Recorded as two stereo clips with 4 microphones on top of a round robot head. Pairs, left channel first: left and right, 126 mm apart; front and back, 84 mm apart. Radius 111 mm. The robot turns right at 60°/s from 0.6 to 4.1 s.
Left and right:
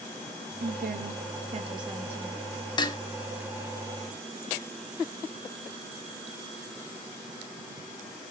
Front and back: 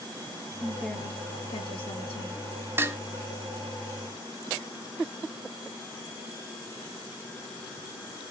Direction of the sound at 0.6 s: 100° right.